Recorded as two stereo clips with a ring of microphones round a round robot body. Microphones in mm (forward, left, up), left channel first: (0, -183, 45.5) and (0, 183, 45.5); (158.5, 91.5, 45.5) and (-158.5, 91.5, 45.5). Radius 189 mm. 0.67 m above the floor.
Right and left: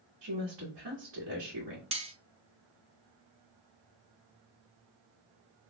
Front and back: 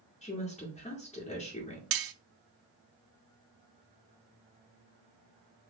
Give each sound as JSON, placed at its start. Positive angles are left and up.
{"t": 0.2, "sound": "a woman speaking", "azimuth_deg": 65, "distance_m": 1.7}
{"t": 1.9, "sound": "cutlery clinking", "azimuth_deg": 165, "distance_m": 0.6}